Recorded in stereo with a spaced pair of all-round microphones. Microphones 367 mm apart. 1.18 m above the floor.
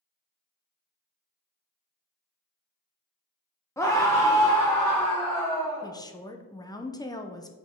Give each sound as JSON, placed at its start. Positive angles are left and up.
{"t": 3.8, "sound": "a scream", "side_deg": 10, "distance_m": 0.8}
{"t": 5.8, "sound": "a woman speaking", "side_deg": 10, "distance_m": 0.6}